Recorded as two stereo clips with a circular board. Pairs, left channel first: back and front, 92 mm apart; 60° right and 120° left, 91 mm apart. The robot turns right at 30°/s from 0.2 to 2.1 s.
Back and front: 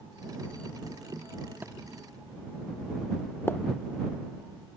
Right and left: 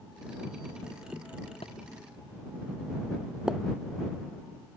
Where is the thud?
70° right; by 1.8 s 65° right.